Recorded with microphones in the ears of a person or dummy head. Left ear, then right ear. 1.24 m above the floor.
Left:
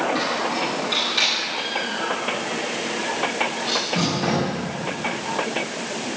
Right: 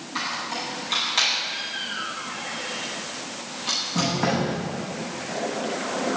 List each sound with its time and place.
0.1 s a squeak: 35° right (ahead or behind), 8 m